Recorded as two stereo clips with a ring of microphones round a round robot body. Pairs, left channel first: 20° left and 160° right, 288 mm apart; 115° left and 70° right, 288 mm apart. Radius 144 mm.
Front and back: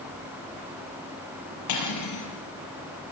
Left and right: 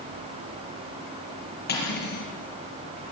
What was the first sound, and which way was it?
Cutlery clinking, 55° left.